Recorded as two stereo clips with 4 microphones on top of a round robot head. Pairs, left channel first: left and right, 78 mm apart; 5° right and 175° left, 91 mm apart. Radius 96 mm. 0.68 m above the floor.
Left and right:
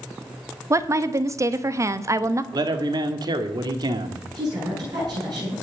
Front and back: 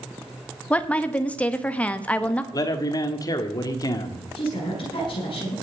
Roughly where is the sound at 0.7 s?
Right.